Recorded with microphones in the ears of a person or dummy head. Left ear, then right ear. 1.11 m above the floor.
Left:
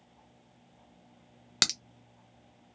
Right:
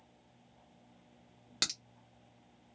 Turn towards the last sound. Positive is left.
turn(degrees=35)  # may be behind; listen again after turning